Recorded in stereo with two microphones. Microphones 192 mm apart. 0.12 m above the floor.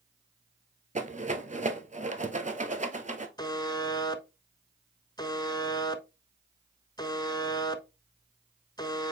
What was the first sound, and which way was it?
A rattle, 40° right (ahead or behind).